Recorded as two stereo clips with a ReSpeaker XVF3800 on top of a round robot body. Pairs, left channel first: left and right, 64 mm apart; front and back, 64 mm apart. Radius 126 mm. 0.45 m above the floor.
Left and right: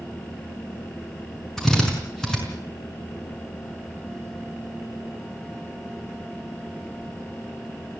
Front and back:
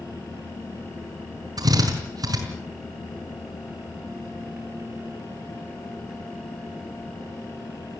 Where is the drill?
170° left, 5.5 m.